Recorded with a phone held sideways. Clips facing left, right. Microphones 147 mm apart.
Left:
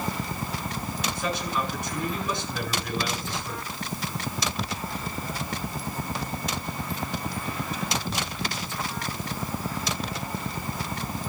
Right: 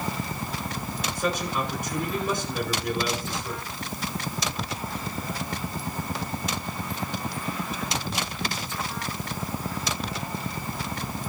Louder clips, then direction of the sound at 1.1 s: Right 3 dB; 50° right (ahead or behind).